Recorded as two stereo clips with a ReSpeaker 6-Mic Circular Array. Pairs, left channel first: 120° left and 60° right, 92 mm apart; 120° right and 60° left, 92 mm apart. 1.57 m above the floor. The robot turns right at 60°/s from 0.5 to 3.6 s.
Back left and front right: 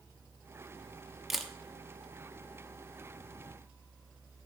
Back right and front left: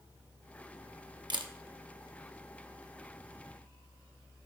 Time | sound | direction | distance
1.3 | a camera shutter | 25° left | 0.9 m